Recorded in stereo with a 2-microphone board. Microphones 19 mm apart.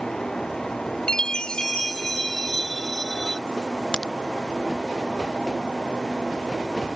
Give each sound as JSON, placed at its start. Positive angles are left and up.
{"t": 1.1, "sound": "a chime", "side_deg": 45}
{"t": 3.9, "sound": "a crack", "side_deg": 50}